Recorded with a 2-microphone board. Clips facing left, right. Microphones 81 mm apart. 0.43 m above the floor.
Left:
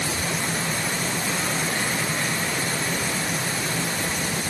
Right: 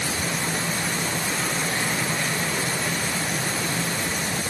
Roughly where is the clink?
I don't hear a clink.